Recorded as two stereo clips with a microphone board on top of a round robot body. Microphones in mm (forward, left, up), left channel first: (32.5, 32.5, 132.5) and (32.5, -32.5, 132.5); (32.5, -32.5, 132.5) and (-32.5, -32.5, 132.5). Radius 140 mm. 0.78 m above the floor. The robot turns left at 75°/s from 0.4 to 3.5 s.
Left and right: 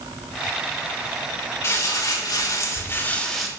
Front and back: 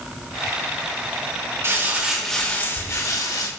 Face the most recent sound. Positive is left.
turn(degrees=-5)